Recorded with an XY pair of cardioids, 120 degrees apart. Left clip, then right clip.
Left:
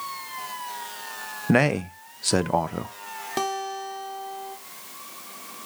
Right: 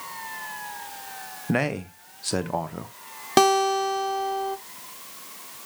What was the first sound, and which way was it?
A man speaking, 30° left.